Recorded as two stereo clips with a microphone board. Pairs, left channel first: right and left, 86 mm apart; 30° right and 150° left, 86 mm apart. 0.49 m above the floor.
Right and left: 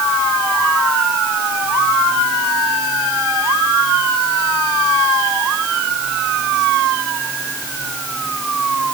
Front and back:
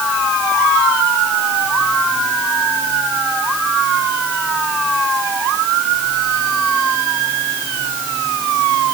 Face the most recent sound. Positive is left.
No sound to turn to.